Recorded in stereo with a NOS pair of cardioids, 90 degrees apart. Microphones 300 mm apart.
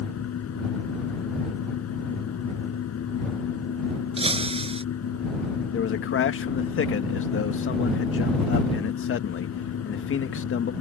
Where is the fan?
60° left.